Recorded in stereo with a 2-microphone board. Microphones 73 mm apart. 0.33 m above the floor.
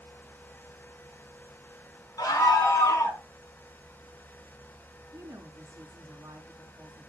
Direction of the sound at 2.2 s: 60° left (ahead or behind).